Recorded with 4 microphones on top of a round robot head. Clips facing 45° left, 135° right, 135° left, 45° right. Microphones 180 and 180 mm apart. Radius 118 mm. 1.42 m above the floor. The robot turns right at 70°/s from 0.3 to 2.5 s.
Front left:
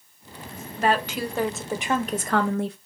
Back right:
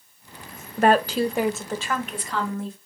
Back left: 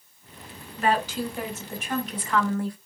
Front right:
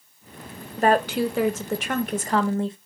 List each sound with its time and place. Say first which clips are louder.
0.8 s a woman speaking: back right 5 dB, front right 5 dB; 100° right, 1.1 m; by 2.8 s 20° left, 1.1 m